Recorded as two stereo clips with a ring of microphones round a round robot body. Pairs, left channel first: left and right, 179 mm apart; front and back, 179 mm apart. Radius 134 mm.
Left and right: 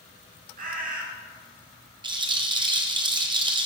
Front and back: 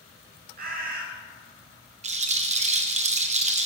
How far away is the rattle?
About 0.9 m.